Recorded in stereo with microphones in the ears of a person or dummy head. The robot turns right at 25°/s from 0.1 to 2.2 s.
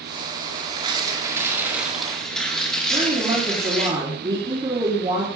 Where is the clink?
No clink in this recording.